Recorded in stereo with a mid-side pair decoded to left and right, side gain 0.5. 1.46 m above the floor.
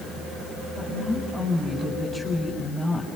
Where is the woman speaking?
5° left, 8.5 m.